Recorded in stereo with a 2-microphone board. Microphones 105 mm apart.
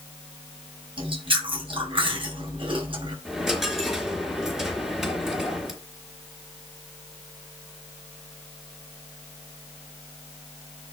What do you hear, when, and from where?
1.0 s chewing: 55° right (ahead or behind), 5 m
3.2 s a dropped coin: 5° right (ahead or behind), 3.5 m